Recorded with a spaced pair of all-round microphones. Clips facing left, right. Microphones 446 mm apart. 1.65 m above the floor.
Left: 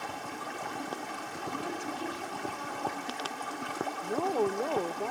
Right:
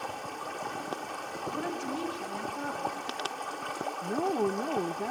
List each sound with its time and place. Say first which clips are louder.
0.0 s running water: right 1 dB; 35° left (ahead or behind), 3 m
1.6 s a woman speaking: right 4 dB; 70° right (ahead or behind), 3.5 m
4.0 s a woman speaking: right 1 dB; 30° right (ahead or behind), 0.8 m